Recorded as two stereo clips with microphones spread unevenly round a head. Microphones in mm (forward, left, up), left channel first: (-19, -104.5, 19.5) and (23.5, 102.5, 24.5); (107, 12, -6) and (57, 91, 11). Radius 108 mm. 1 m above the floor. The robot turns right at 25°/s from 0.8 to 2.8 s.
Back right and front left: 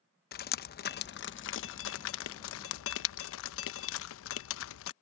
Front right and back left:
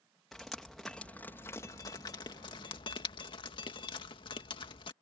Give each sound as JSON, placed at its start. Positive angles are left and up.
{"t": 0.3, "sound": "dripping", "azimuth_deg": -145}